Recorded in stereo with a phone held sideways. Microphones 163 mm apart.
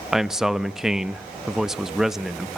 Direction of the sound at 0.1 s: 5° right (ahead or behind).